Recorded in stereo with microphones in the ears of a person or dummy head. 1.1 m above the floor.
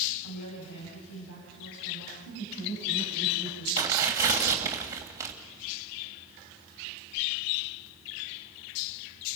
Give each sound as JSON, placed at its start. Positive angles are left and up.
{"t": 0.2, "sound": "a woman speaking", "side_deg": 80, "distance_m": 8.0}
{"t": 2.2, "sound": "laughter", "side_deg": 50, "distance_m": 6.0}
{"t": 3.8, "sound": "tearing paper", "side_deg": -20, "distance_m": 2.5}